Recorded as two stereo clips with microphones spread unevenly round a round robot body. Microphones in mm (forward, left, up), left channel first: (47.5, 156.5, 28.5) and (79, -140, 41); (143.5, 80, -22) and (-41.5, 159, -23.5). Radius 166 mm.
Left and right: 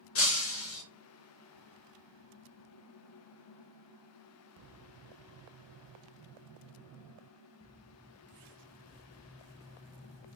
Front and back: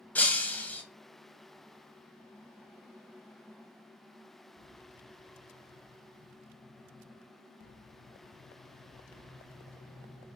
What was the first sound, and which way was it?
Breaking glass, 60° left.